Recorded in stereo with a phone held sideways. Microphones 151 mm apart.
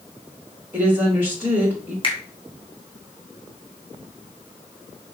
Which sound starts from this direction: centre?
A woman speaking, at 0.7 s.